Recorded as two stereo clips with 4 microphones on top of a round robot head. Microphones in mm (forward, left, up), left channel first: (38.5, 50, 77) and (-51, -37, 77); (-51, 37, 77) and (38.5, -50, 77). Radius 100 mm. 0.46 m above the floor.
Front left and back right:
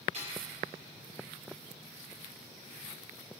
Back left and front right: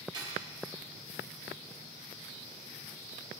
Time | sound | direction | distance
0.1 | cutlery clinking | 100° right | 7 m